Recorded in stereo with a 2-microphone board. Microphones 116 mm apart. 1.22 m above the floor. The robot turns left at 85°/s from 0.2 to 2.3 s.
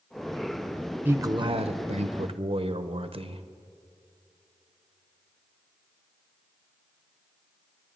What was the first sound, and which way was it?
A man speaking, 15° right.